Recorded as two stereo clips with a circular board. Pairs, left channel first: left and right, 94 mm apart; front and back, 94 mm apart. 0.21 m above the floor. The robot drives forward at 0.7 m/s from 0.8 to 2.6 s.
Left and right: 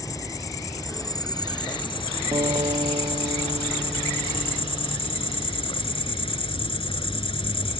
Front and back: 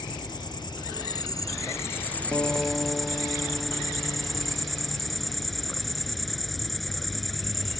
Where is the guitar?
65° right; by 5.7 s 75° right.